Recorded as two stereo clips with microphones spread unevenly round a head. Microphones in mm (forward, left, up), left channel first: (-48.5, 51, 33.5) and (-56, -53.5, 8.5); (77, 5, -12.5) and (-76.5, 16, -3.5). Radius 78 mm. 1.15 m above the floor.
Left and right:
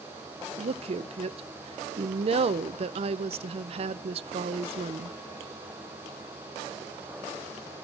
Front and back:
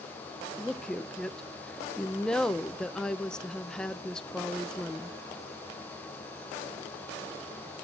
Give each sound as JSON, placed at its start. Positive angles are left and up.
{"t": 0.6, "sound": "a woman speaking", "azimuth_deg": -90, "distance_m": 0.5}